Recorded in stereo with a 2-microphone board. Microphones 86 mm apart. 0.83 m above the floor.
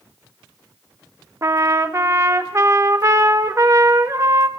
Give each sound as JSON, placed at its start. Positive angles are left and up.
{"t": 1.4, "sound": "a trumpet", "side_deg": -35, "distance_m": 1.2}